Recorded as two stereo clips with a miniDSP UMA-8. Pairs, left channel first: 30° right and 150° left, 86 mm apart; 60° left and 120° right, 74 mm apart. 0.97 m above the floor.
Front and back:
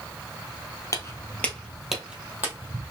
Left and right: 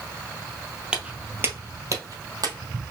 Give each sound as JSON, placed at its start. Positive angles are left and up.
{"t": 0.9, "sound": "footsteps", "azimuth_deg": -50, "distance_m": 1.2}